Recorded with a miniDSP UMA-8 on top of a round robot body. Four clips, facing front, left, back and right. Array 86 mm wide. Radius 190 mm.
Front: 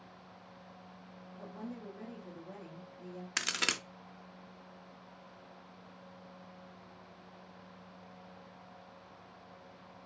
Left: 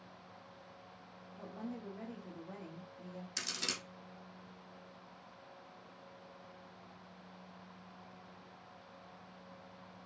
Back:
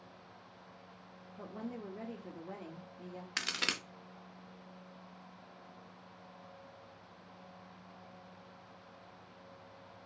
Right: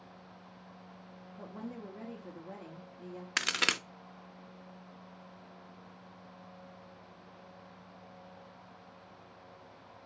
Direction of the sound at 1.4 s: 145° right.